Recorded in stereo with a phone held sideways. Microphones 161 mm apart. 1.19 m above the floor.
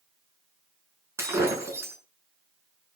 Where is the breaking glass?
15° right (ahead or behind), 6 m.